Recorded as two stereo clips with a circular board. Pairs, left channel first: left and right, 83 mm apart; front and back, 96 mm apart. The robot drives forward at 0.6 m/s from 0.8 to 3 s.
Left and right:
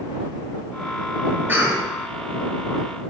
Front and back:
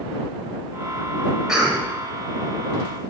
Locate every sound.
1.5 s a cough: 100° right, 0.9 m; by 1.9 s 130° right, 1.0 m